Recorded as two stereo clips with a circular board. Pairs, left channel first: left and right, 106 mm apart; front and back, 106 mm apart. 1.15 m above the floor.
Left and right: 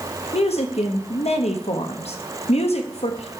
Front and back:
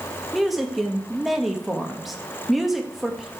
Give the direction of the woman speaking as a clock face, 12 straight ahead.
9 o'clock.